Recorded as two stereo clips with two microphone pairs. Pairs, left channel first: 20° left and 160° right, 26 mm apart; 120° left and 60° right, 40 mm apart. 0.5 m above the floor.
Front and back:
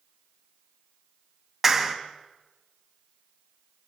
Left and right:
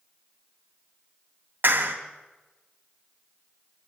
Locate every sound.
1.6 s a clap: 85° right, 3 m